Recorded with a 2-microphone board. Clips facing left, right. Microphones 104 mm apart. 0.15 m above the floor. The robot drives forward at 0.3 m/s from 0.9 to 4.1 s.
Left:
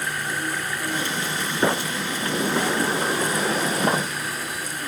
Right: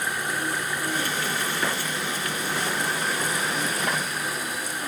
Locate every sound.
1.6 s a sliding door: 35° left (ahead or behind); by 4.1 s 30° left (ahead or behind)